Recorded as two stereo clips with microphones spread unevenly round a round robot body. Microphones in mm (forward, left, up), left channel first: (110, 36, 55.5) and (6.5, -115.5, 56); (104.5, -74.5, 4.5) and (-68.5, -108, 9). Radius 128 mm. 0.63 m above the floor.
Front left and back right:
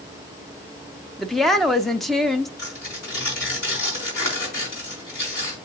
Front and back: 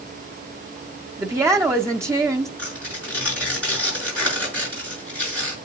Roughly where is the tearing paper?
Left.